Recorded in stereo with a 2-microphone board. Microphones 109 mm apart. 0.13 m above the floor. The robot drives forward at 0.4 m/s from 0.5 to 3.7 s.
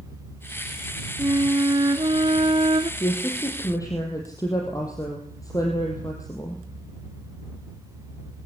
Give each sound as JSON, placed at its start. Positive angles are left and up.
{"t": 1.2, "sound": "a flute", "side_deg": -35, "distance_m": 1.2}
{"t": 3.0, "sound": "a woman speaking", "side_deg": 35, "distance_m": 4.0}